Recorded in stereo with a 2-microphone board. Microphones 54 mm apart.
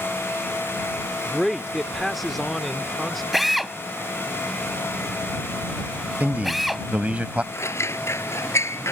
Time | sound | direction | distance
1.2 | a man speaking | centre (ahead or behind) | ?
3.3 | a drill | centre (ahead or behind) | ?
6.2 | a man speaking | 25° right (ahead or behind) | ?
7.5 | scissors | 60° left (ahead or behind) | ?